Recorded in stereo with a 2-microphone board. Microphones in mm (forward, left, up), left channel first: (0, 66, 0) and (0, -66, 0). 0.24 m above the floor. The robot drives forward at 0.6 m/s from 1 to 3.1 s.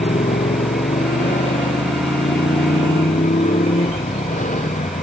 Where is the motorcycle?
90° left; by 5.0 s 85° left.